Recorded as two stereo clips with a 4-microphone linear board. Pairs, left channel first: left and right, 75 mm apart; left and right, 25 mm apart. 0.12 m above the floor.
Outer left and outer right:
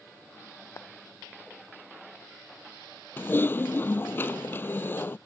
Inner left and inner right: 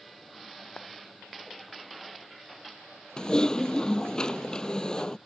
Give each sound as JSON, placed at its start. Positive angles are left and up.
{"t": 0.8, "sound": "a clap", "side_deg": 40}
{"t": 3.2, "sound": "typing on a keyboard", "side_deg": 30}